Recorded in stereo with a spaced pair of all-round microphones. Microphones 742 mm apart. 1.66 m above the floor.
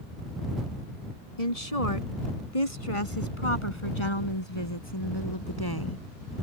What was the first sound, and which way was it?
A woman speaking, 50° left (ahead or behind).